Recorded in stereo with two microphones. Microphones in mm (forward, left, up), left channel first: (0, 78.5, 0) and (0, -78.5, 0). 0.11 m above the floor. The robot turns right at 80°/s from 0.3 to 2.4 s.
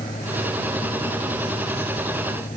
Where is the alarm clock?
I don't hear an alarm clock.